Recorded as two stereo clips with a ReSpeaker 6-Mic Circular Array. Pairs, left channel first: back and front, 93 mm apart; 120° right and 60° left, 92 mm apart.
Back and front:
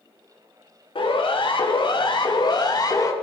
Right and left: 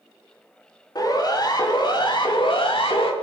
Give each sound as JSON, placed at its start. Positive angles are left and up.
{"t": 0.9, "sound": "a siren", "azimuth_deg": -165, "distance_m": 4.5}